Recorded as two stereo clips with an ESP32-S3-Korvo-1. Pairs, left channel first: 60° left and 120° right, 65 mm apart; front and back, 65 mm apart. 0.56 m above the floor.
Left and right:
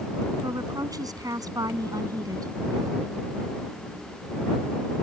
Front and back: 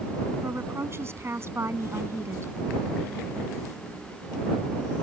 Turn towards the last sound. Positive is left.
turn(degrees=-130)